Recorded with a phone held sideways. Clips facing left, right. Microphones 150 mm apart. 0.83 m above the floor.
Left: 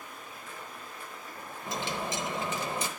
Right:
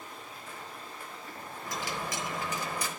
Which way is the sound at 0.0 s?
30° right (ahead or behind).